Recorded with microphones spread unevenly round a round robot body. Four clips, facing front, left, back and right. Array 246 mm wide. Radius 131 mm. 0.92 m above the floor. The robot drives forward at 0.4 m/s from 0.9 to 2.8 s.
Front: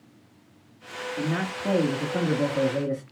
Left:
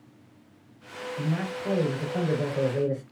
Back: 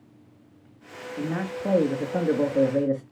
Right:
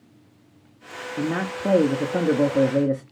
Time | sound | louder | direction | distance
1.2 | a man speaking | right 6 dB, even | 70° right | 1.6 m